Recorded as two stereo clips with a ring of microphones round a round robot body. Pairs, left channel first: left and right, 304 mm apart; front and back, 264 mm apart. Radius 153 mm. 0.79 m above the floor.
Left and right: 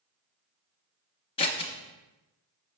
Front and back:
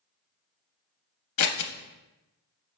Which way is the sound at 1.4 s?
15° left.